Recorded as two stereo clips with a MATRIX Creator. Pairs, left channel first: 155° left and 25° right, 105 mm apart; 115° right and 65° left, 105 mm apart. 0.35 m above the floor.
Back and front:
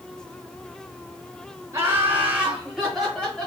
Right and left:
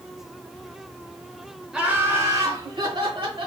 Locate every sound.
1.7 s laughter: 10° right, 1.0 m; by 3.5 s 75° left, 1.9 m